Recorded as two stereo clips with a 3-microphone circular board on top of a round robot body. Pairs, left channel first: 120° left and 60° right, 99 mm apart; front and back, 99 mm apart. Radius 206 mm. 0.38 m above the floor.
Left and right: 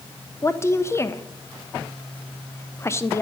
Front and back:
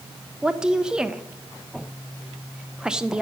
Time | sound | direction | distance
0.4 | a woman speaking | 105° left | 1.1 m